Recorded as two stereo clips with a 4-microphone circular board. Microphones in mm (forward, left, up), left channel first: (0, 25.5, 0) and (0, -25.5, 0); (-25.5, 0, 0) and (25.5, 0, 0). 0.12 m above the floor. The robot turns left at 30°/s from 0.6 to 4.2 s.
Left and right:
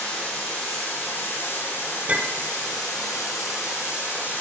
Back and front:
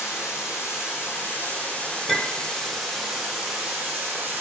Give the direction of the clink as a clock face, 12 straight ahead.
3 o'clock.